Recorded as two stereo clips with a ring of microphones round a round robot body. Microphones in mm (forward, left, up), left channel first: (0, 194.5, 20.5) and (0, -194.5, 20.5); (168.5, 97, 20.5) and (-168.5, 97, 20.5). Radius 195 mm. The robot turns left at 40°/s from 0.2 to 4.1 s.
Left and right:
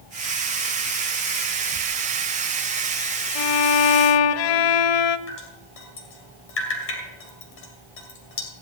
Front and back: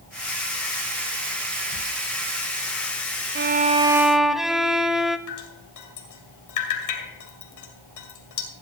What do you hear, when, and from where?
3.4 s a violin: 120° left, 0.6 m; by 5.2 s 90° left, 0.6 m
5.3 s dripping: 30° left, 2.5 m